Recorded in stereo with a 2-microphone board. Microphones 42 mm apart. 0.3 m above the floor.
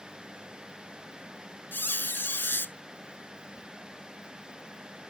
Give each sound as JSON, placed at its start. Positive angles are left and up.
{"t": 1.7, "sound": "a squeak", "side_deg": 55}